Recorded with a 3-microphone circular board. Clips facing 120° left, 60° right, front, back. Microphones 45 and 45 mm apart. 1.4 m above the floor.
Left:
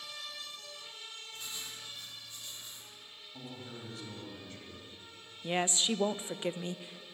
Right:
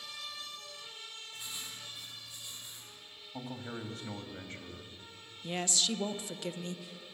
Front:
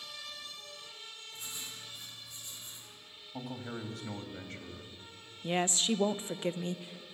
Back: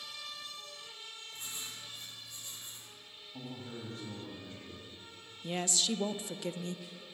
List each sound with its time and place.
1.3 s writing: 135° right, 8 m
3.3 s a man speaking: 20° right, 2.5 m
5.4 s a woman speaking: 55° left, 0.6 m